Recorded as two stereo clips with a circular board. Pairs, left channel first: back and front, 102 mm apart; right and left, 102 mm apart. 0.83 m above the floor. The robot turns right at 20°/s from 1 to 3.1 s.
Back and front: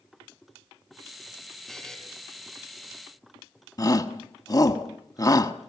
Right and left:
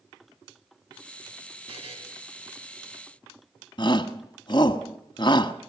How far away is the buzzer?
About 4.5 m.